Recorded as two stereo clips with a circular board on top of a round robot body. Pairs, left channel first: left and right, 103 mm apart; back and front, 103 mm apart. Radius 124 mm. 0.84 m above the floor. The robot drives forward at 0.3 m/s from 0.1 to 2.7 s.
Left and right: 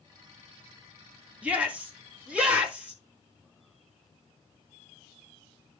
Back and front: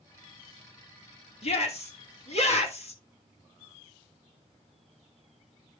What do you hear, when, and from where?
1.4 s a shout: 165° right, 2.5 m; by 3.0 s 170° right, 3 m